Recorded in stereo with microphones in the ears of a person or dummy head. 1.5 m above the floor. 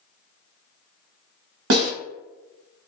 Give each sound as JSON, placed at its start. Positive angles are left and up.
{"t": 1.7, "sound": "a snare drum", "side_deg": -70, "distance_m": 1.0}